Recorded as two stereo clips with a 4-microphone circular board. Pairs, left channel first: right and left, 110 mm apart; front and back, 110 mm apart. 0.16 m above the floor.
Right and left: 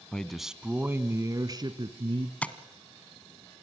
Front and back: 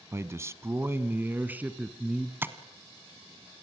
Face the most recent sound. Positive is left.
turn(degrees=-150)